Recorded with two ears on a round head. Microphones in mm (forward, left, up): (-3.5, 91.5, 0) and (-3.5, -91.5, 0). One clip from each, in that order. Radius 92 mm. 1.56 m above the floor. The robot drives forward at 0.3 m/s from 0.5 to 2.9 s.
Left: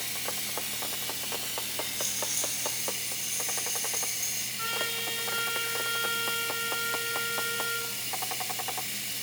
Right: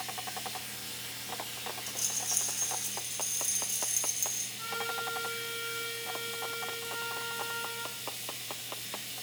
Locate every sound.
0.0 s running water: 50° left (ahead or behind), 3.5 m; by 9.2 s 40° left (ahead or behind), 4 m
1.9 s a rattle: 75° right (ahead or behind), 1.5 m; by 4.5 s 80° right, 1.5 m
4.6 s a trumpet: 15° left (ahead or behind), 2.5 m